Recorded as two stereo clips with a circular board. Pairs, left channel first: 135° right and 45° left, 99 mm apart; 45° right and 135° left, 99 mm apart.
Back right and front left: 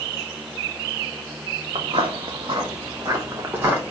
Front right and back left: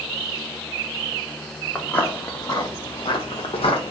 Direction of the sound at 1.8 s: 25° left.